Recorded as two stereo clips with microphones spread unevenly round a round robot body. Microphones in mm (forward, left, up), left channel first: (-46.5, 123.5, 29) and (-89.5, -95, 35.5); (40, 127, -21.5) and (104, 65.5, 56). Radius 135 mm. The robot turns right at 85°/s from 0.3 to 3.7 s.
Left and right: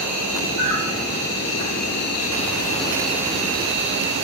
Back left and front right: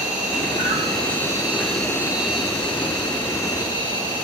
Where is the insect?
70° right, 6 m; by 4.2 s 140° right, 6 m.